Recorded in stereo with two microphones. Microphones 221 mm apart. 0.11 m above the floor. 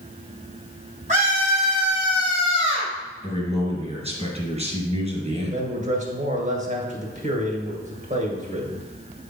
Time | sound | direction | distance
1.1 | a scream | 35° right (ahead or behind) | 3 m
3.2 | a man speaking | 30° right (ahead or behind) | 1.7 m
5.4 | a man speaking | 35° right (ahead or behind) | 2 m